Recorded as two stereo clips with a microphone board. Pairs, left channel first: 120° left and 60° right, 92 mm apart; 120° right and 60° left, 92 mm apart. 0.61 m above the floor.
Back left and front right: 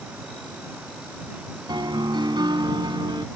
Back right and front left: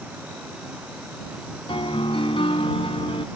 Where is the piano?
100° right.